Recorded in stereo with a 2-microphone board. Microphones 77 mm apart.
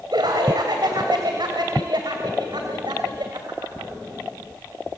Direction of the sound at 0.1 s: 70° right (ahead or behind).